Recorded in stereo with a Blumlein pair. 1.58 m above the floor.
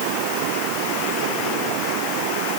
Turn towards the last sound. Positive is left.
No sound to turn to.